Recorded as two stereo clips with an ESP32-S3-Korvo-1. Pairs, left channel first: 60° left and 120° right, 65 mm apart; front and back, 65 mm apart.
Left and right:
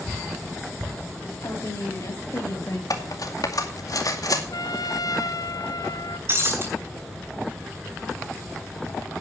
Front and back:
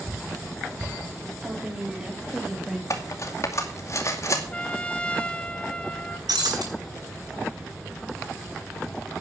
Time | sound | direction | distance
1.4 | a woman speaking | 105° left | 5 m
2.9 | cutlery clinking | 40° left | 2 m
4.5 | a trumpet | 70° left | 1.0 m
6.3 | breaking glass | 170° right | 5 m